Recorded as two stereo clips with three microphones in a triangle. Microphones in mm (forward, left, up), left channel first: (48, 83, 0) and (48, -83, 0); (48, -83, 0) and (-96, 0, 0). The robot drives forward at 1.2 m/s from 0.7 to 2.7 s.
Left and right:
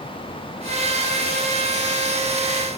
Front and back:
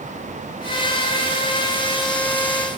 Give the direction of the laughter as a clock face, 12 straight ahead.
No laughter in this recording.